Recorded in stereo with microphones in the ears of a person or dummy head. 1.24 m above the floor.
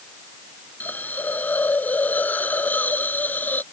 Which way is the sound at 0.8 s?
10° left (ahead or behind).